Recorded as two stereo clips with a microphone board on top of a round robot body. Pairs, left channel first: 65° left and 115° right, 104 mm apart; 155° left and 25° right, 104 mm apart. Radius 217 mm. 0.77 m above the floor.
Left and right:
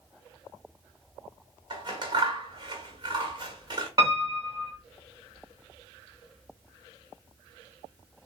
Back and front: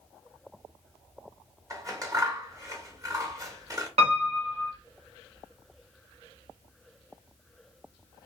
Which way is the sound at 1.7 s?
75° right.